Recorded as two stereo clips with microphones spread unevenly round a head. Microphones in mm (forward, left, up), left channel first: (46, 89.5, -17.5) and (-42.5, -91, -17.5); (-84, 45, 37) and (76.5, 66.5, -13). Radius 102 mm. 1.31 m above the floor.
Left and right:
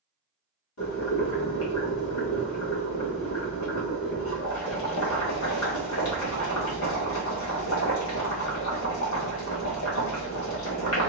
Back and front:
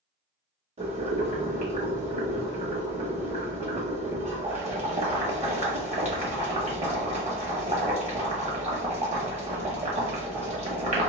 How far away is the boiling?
About 1.4 m.